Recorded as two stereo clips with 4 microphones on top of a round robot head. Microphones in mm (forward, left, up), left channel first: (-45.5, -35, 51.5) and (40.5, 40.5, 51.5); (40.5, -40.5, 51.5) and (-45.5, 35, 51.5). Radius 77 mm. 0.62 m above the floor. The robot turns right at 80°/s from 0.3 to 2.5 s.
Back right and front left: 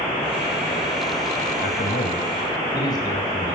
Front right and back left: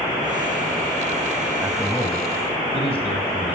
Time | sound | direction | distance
1.6 | a man speaking | 155° right | 3 m